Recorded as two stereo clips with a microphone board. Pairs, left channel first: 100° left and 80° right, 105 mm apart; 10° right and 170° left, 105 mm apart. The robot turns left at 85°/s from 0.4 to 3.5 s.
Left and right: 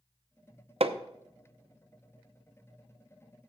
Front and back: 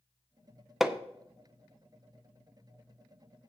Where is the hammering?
100° right, 0.7 m; by 1.0 s 115° right, 0.7 m.